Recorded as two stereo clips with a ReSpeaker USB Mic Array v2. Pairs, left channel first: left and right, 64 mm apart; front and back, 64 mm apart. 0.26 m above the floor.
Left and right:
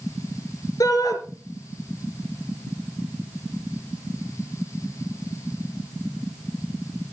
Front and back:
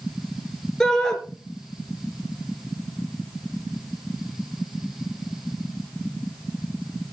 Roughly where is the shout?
Left.